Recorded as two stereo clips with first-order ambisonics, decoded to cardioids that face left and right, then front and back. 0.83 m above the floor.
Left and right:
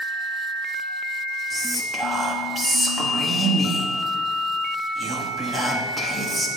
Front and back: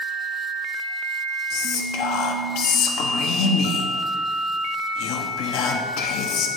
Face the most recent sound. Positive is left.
turn(degrees=-10)